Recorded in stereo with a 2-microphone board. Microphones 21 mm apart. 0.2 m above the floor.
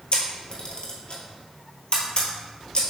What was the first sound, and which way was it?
A camera shutter, 50° left (ahead or behind).